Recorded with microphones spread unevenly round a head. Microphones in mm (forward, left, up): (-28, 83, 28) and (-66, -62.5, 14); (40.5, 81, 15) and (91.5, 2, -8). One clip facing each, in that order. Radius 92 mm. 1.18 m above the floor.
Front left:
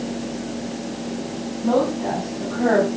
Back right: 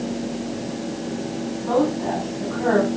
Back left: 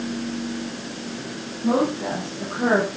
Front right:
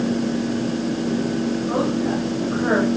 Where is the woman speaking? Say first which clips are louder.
Front left 1 dB, back left 5 dB; 130° left, 10 m.